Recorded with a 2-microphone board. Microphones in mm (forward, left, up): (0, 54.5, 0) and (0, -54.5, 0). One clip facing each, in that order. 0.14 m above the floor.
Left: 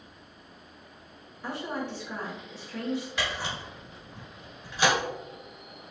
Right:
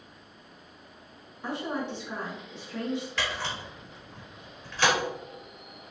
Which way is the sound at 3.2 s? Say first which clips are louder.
Even; 15° left (ahead or behind).